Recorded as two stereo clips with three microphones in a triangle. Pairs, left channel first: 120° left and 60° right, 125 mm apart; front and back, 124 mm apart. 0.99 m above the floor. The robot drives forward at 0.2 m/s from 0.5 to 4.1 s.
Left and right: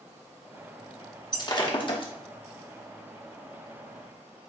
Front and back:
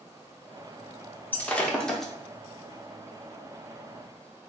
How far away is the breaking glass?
About 0.7 m.